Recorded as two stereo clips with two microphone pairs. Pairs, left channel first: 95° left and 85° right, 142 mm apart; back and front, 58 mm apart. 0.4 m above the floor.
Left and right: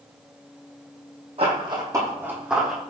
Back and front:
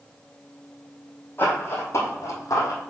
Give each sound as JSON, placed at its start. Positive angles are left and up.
{"t": 1.4, "sound": "running footsteps", "azimuth_deg": -130, "distance_m": 1.2}